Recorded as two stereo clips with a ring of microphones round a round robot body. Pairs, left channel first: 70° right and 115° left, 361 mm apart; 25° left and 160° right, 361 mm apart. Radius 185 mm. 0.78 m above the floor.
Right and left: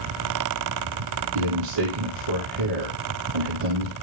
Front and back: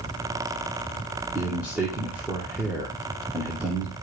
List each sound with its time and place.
1.4 s a man speaking: 115° left, 2.5 m